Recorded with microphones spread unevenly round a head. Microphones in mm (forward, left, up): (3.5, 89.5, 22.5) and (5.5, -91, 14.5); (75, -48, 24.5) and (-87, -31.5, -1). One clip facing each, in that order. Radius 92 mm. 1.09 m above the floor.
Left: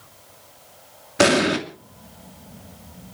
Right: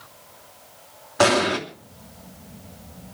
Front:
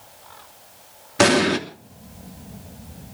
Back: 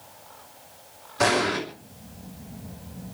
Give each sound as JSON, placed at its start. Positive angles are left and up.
{"t": 1.2, "sound": "an explosion", "azimuth_deg": 30, "distance_m": 3.0}